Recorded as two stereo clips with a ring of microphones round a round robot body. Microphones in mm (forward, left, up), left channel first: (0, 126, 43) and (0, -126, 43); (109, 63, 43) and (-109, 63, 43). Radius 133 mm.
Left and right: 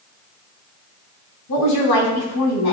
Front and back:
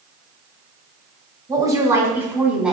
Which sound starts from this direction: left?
A woman speaking, at 1.5 s.